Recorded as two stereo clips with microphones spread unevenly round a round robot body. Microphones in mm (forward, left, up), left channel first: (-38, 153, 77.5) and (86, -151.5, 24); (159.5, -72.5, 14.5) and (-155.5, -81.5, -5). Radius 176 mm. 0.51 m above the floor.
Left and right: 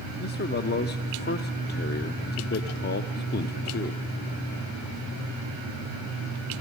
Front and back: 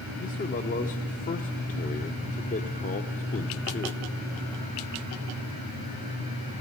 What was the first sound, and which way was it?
A man speaking, 55° left.